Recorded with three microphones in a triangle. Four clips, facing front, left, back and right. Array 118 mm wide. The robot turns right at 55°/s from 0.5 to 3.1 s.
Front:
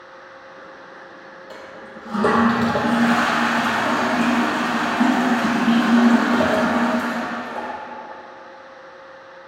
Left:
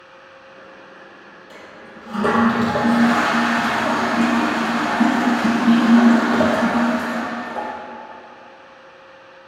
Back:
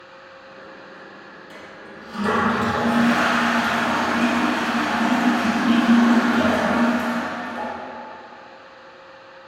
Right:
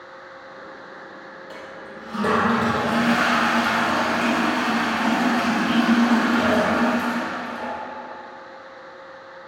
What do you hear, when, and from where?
1.5 s a toilet flushing: 30° right, 2.5 m; by 7.7 s 60° left, 2.5 m